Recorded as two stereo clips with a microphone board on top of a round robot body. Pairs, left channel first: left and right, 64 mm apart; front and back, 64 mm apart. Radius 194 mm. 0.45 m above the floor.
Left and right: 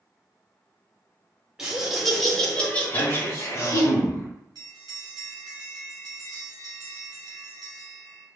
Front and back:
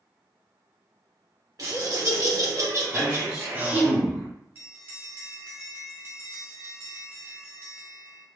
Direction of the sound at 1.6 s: 170° right.